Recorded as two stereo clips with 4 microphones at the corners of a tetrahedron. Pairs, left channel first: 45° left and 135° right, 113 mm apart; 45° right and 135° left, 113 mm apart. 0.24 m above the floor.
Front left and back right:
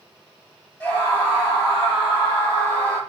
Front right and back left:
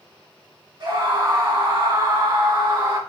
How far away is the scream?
About 1.7 m.